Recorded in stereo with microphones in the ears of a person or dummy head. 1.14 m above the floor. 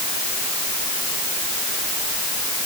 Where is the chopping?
No chopping in this recording.